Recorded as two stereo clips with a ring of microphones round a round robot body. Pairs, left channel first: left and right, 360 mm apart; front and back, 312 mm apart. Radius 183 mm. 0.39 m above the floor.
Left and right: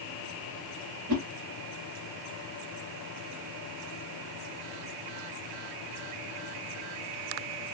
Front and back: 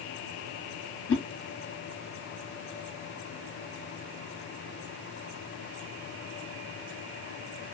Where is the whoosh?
50° right, 1.1 m.